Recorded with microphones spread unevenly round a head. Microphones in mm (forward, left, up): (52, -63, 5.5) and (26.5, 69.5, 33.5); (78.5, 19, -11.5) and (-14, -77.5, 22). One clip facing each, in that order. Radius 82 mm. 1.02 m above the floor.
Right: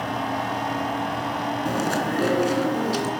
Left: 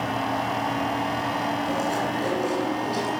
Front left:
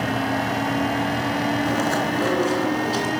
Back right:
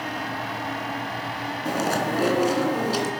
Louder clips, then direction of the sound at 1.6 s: Right 1 dB, front left 3 dB; 65° right.